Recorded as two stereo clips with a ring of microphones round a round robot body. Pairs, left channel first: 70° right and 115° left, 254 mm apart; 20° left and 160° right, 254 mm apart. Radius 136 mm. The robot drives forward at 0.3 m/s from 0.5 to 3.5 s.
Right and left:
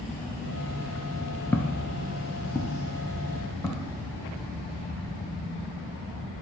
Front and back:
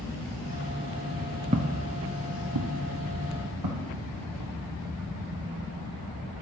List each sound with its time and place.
1.5 s footsteps: 140° right, 0.6 m; by 4.5 s 145° right, 4 m